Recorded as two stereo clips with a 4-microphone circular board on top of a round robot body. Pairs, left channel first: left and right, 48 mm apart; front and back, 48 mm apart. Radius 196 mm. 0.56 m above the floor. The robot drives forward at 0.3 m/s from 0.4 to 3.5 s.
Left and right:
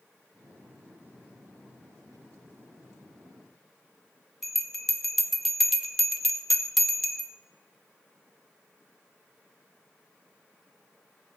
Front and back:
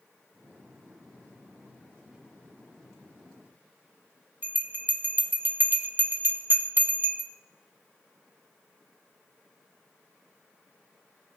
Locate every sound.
4.4 s a bell: straight behind, 1.0 m